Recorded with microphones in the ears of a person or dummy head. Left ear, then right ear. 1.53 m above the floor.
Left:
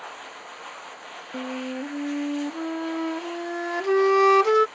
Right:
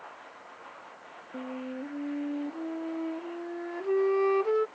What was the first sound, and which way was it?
A machine running, 85° left.